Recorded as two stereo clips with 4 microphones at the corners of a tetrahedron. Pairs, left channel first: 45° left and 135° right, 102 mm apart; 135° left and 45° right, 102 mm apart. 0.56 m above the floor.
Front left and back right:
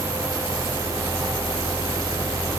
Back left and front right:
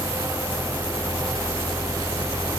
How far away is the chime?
I don't hear a chime.